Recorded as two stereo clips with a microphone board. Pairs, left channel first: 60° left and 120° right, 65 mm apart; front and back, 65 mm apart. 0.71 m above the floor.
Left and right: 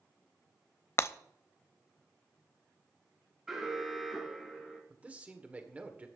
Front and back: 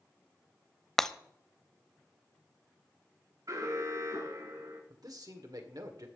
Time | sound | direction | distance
1.0 | breaking glass | 80° left | 0.6 m
3.5 | an alarm | 155° left | 4 m
4.9 | a man speaking | 170° left | 2 m